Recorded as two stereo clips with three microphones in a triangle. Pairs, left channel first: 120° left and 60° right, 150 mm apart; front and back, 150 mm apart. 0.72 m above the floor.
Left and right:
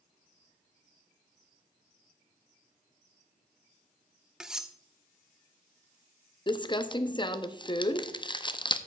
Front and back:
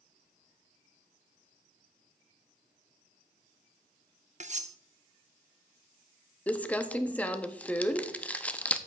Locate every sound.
4.4 s cutlery clinking: 145° right, 0.6 m
6.5 s crumpling: 75° left, 0.6 m